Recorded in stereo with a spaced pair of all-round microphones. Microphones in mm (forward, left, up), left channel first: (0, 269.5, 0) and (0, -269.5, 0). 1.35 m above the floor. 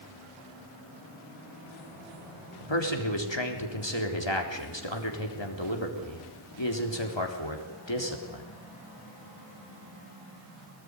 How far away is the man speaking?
About 4 m.